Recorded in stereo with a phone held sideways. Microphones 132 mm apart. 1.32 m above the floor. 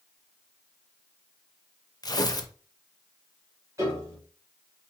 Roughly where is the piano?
Right.